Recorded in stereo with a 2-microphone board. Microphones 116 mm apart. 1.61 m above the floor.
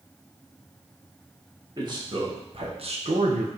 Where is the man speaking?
35° right (ahead or behind), 2.5 m; by 3.5 s 80° right, 1.2 m.